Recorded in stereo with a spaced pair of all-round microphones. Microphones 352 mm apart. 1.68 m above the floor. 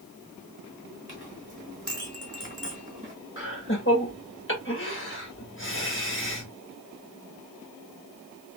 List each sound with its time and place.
1.1 s a clink: 20° right (ahead or behind), 1.5 m
3.4 s laughter: 35° left (ahead or behind), 1.8 m